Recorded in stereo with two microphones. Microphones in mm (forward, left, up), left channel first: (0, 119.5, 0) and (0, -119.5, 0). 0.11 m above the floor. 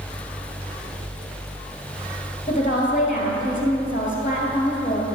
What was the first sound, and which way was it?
A woman speaking, 35° left (ahead or behind).